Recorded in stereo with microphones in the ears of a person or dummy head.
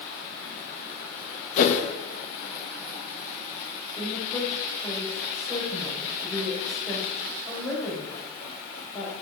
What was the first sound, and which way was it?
A whoosh, 60° left (ahead or behind).